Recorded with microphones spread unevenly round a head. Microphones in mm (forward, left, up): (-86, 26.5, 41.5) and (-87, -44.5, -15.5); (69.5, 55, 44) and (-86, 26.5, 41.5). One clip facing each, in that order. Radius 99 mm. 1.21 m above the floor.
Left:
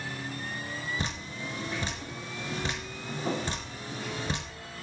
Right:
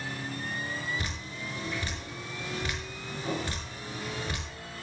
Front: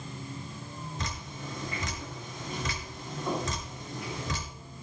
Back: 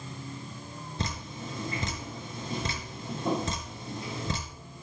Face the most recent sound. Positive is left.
turn(degrees=135)